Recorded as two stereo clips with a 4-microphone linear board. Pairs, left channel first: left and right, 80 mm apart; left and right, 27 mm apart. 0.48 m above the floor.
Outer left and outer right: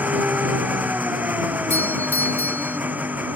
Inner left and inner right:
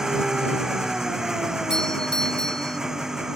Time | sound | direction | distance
0.0 | an engine running | 20° right (ahead or behind) | ?
1.7 | a doorbell | 25° left (ahead or behind) | ?